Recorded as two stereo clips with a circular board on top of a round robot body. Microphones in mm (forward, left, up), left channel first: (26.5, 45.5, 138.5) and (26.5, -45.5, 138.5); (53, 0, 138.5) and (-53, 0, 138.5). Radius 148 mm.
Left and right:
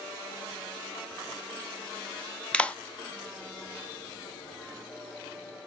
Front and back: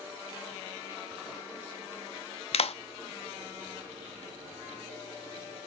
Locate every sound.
2.5 s a clap: 15° left, 0.7 m